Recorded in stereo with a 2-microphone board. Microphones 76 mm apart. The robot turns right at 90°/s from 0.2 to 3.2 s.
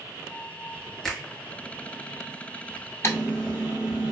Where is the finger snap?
5° left (ahead or behind), 1.0 m; by 1.3 s 15° left (ahead or behind), 1.0 m.